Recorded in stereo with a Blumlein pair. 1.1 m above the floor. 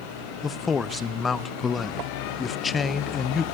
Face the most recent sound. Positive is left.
turn(degrees=15)